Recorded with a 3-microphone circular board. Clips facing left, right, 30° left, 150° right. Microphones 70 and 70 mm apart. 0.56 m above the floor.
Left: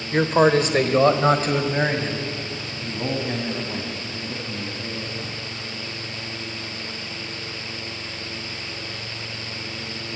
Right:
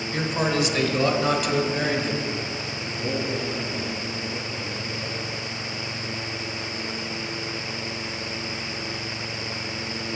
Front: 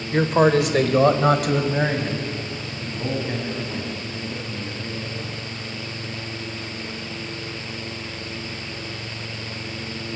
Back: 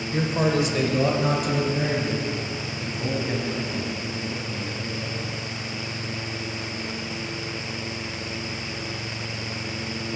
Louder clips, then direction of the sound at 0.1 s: Left 8 dB, front 6 dB; 50° left.